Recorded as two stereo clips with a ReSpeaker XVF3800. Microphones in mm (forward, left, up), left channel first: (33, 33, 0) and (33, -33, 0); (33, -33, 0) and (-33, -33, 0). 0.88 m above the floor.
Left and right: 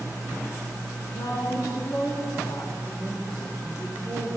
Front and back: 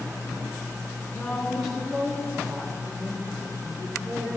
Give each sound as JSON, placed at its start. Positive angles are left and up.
{"t": 1.1, "sound": "a woman speaking", "azimuth_deg": 75, "distance_m": 1.3}